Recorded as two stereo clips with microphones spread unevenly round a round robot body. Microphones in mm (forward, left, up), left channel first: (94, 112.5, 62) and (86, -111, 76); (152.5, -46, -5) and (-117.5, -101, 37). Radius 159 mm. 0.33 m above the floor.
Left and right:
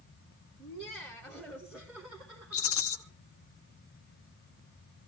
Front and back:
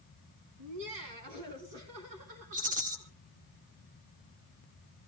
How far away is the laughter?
About 4 m.